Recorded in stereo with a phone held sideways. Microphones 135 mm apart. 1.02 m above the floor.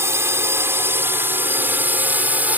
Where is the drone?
20° right (ahead or behind); by 2.6 s 10° right (ahead or behind).